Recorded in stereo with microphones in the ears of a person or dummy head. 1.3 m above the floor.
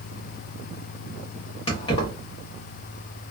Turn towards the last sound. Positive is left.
turn(degrees=30)  # may be behind; listen again after turning